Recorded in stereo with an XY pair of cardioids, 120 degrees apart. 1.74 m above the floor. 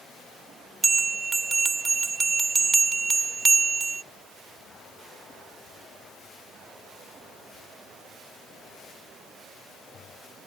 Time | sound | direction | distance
0.8 | a bell | 25° right | ?